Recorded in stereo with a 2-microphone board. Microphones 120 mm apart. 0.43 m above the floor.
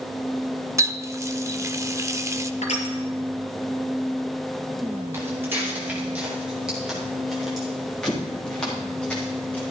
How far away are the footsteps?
About 5 m.